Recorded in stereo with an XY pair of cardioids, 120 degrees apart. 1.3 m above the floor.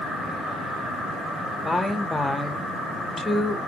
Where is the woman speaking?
15° left, 0.9 m.